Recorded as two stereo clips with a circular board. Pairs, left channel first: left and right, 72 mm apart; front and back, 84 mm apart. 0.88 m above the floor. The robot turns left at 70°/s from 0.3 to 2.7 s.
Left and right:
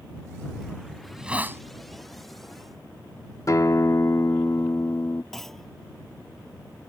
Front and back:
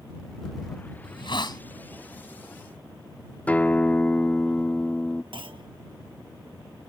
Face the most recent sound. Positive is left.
turn(degrees=175)